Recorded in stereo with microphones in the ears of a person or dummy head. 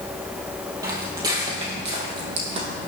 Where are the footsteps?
20° right (ahead or behind), 2.5 m; by 2.9 s 35° right (ahead or behind), 3 m.